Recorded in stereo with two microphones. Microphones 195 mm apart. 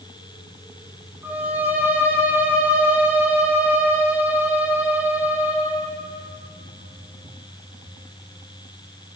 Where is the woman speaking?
I don't hear a woman speaking.